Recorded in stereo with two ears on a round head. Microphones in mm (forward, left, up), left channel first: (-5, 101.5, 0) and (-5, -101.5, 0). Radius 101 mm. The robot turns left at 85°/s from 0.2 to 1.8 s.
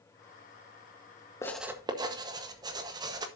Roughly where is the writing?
Centre.